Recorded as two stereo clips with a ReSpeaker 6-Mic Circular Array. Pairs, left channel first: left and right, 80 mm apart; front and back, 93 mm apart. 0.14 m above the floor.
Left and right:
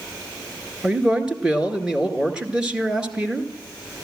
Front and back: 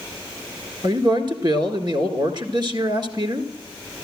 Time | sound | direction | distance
0.8 | a man speaking | 165° right | 1.8 m